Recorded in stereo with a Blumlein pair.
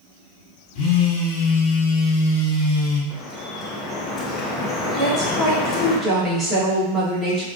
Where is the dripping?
20° left, 0.8 m.